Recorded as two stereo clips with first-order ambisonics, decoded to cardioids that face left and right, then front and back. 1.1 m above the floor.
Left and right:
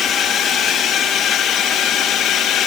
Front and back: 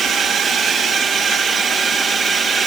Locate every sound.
0.0 s a drone: 120° left; by 2.7 s 110° left